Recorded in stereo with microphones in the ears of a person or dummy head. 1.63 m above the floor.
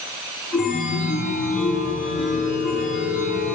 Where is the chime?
Centre (ahead or behind), 8.5 m.